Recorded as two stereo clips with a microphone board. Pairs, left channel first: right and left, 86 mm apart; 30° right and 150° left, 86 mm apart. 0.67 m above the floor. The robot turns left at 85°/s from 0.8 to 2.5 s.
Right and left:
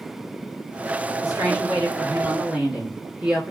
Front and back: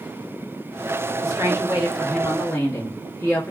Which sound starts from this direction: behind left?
A woman speaking, at 1.2 s.